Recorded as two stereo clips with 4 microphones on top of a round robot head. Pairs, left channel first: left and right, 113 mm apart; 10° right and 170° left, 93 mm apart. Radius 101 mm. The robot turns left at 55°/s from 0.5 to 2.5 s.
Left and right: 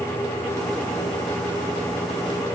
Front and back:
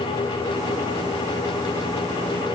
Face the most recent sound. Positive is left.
No sound to turn to.